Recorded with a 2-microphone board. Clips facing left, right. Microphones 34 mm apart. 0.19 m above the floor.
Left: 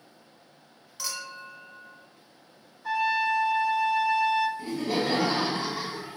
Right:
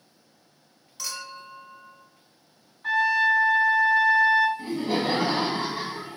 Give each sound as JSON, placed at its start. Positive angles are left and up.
{"t": 1.0, "sound": "a clink", "side_deg": 5, "distance_m": 1.2}
{"t": 2.8, "sound": "a trumpet", "side_deg": -55, "distance_m": 0.7}
{"t": 4.6, "sound": "laughter", "side_deg": -25, "distance_m": 1.0}